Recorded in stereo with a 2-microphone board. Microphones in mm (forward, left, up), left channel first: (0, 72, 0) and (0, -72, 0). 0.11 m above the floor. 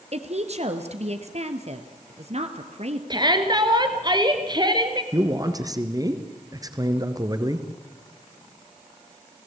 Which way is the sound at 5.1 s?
30° right (ahead or behind).